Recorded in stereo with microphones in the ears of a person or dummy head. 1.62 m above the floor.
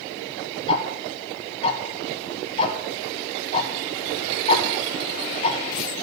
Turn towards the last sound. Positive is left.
turn(degrees=30)  # may be behind; listen again after turning